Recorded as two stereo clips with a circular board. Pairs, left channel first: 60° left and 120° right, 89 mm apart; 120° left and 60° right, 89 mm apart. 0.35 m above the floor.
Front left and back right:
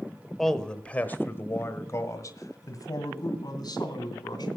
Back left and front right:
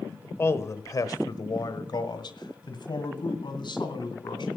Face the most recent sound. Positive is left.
turn(degrees=95)